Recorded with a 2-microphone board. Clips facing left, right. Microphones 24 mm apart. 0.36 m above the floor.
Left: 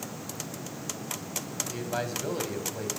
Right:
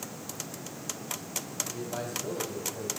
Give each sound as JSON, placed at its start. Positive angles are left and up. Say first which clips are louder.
{"t": 1.7, "sound": "a man speaking", "louder": "left 6 dB", "side_deg": 55, "distance_m": 2.0}